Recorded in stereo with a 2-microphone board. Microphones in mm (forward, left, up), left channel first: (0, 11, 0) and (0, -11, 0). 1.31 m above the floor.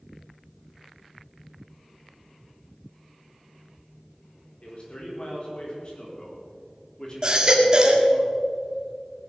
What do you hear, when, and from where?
4.6 s a man speaking: 55° left (ahead or behind), 4.5 m; by 8.2 s 25° left (ahead or behind), 3.5 m
7.2 s a baby crying: 30° right (ahead or behind), 2 m